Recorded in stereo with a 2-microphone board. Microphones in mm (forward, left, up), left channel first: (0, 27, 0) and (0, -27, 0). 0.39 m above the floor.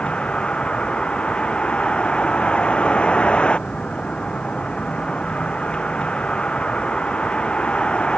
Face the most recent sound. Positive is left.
turn(degrees=20)  # may be behind; listen again after turning